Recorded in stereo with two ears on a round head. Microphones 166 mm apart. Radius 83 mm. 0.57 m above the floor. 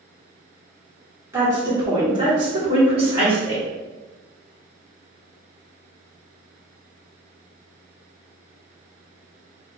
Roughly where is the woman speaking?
Centre.